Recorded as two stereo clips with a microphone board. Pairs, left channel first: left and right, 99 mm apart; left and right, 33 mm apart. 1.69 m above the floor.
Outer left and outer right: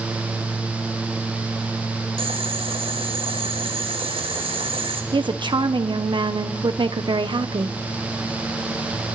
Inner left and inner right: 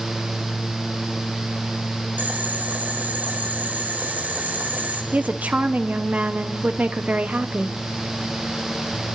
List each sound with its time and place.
2.2 s boiling: 75° right (ahead or behind), 3.5 m
5.1 s a woman speaking: 55° right (ahead or behind), 1.2 m